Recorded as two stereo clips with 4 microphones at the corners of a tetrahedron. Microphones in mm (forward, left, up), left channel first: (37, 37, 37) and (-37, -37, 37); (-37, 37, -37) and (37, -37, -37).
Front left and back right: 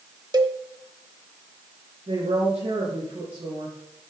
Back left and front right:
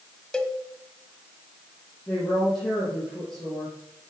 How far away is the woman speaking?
About 6.5 m.